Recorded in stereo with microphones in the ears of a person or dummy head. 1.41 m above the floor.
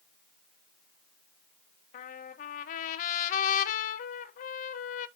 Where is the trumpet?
45° left (ahead or behind), 0.7 m.